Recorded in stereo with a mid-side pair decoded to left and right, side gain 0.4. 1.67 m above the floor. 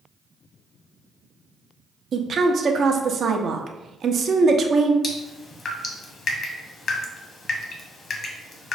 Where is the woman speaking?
55° right, 0.5 m.